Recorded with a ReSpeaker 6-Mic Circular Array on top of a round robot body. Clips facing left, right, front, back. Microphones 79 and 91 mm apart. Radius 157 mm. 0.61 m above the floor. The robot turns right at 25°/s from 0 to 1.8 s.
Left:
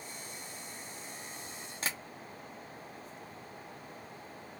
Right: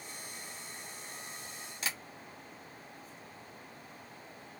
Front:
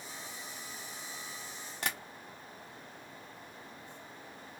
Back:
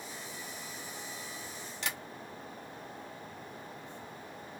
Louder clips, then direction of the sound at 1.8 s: Left 1 dB, front 2 dB; 40° left.